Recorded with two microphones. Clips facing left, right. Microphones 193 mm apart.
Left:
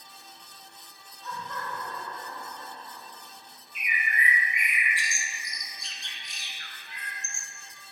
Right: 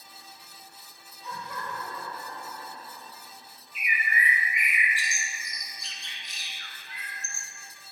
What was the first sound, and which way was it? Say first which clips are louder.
Laughter: even; 10° right (ahead or behind).